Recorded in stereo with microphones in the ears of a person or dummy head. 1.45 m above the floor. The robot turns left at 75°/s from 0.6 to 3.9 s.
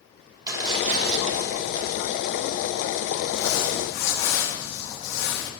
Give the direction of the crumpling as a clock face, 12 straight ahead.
6 o'clock.